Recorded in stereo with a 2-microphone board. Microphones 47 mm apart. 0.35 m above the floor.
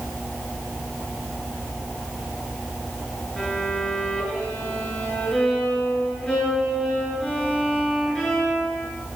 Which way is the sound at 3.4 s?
15° left (ahead or behind).